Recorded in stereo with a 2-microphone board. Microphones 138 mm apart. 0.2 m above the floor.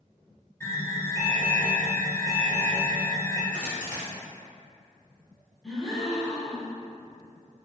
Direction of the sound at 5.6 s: Centre (ahead or behind).